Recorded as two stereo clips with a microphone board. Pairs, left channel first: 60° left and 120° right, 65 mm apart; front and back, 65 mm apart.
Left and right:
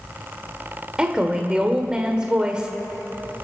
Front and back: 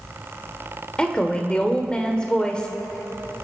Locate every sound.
1.0 s a woman speaking: 60° right, 1.4 m